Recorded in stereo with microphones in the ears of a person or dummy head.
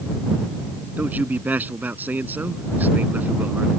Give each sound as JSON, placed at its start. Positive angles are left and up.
{"t": 1.0, "sound": "a man speaking", "side_deg": -10}